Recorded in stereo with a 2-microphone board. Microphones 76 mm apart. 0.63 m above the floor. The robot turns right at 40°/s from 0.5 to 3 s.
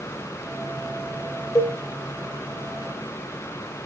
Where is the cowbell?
40° left (ahead or behind), 1.6 m; by 1.8 s 45° left (ahead or behind), 1.6 m.